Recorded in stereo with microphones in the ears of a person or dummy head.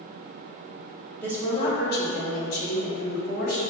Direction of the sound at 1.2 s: 10° left (ahead or behind).